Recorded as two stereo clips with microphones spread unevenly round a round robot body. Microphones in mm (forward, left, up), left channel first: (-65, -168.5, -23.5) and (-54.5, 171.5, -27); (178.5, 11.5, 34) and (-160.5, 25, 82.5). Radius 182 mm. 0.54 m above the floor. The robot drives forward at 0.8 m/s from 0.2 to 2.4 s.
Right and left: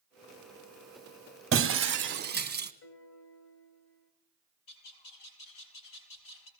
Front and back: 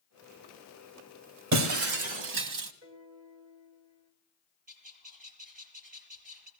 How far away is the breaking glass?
About 2 m.